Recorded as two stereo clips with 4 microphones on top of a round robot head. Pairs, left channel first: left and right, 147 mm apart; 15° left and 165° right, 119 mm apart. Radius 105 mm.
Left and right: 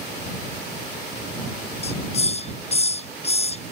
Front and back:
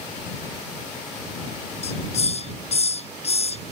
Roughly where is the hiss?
Ahead left.